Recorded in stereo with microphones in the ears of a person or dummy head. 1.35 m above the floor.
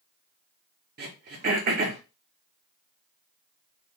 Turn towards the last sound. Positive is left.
turn(degrees=-45)  # may be behind; listen again after turning